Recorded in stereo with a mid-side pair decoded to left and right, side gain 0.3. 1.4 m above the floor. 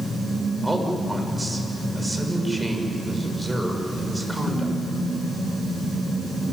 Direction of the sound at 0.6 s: 10° right.